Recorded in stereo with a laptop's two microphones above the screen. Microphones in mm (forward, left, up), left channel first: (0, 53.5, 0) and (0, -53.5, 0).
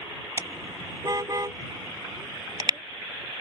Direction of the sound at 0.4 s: 35° right (ahead or behind).